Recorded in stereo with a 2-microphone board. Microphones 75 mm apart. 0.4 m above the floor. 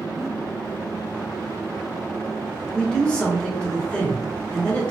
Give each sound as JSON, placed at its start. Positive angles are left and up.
{"t": 0.2, "sound": "a giggle", "side_deg": -30, "distance_m": 0.8}
{"t": 2.7, "sound": "a man speaking", "side_deg": 10, "distance_m": 1.4}